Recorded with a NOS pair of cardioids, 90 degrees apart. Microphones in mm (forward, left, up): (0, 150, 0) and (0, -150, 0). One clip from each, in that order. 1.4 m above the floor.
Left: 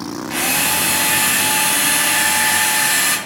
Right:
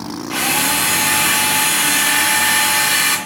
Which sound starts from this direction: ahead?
A drill, at 0.3 s.